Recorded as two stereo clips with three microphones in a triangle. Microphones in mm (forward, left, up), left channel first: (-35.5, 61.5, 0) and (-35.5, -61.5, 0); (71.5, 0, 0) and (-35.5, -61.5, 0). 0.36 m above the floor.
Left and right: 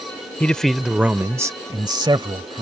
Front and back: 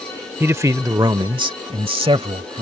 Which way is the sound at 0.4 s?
160° left.